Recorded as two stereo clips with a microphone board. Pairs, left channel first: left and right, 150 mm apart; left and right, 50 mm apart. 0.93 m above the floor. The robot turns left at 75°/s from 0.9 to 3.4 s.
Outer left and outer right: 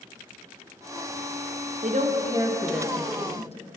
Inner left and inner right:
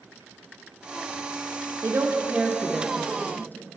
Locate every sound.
1.8 s a woman speaking: 55° right (ahead or behind), 0.6 m; by 3.8 s 45° left (ahead or behind), 0.6 m